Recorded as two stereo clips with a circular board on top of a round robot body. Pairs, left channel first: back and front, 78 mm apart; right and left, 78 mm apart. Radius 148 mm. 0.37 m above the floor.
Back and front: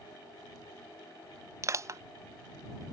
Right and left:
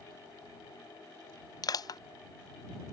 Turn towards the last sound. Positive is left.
turn(degrees=-55)